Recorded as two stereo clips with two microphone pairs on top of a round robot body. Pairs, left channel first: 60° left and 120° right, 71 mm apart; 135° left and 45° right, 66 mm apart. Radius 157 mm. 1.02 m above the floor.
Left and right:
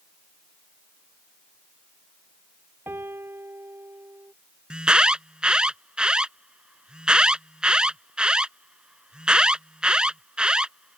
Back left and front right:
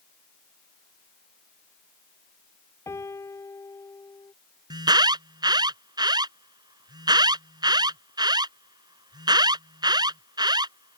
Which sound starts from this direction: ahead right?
An alarm, at 4.7 s.